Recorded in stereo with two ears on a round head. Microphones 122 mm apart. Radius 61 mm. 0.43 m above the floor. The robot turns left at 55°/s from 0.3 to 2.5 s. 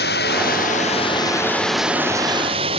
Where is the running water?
80° left; by 2.8 s 40° right.